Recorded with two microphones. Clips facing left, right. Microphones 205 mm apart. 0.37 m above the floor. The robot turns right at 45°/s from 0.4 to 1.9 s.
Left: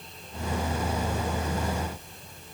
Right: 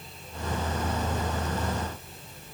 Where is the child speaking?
I don't hear a child speaking.